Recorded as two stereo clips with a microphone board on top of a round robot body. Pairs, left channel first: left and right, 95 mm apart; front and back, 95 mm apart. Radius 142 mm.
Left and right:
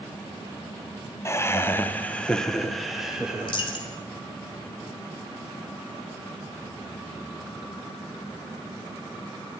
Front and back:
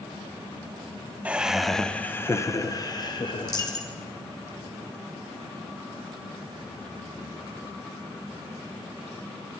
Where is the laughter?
115° left, 1.4 m; by 3.8 s 15° right, 2 m.